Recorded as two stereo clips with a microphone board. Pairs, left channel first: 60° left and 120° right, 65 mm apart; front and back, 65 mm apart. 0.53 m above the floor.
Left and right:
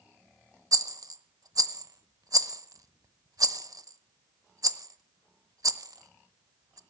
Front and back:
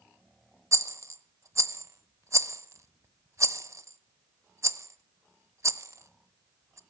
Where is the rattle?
140° right, 0.7 m.